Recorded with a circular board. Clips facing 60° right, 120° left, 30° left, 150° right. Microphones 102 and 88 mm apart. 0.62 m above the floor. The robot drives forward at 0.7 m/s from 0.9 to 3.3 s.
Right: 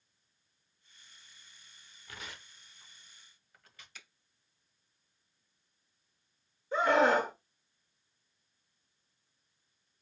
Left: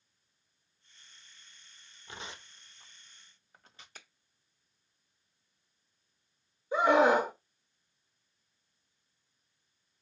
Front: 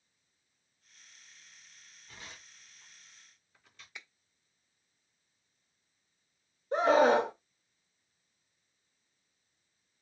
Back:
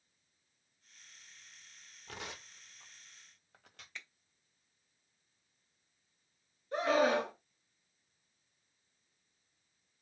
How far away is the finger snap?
About 0.9 m.